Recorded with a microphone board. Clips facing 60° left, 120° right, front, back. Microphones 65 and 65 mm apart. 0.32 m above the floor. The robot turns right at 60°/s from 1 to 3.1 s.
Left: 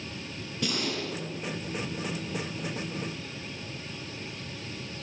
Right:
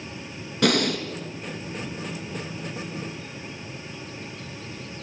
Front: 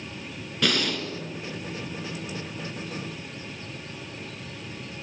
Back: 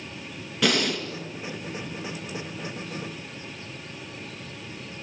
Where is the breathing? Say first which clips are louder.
Right 10 dB, back 2 dB; 95° right, 3.5 m; by 1.1 s 90° right, 3.5 m.